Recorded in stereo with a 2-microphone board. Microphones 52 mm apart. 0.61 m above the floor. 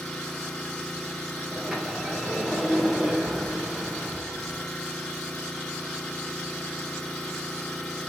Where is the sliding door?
15° right (ahead or behind), 4 m.